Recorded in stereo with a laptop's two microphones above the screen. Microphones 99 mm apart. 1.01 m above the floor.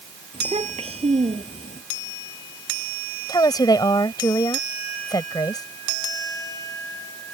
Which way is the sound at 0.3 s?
85° right.